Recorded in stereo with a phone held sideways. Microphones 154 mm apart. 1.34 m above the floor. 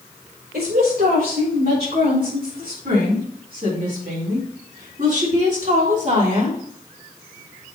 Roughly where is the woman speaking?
Right.